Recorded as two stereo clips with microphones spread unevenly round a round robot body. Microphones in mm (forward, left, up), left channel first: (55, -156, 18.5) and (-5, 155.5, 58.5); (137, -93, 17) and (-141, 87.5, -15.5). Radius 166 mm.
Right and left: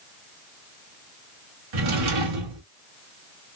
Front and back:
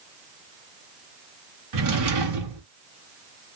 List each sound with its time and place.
1.7 s a drawer: 115° left, 1.3 m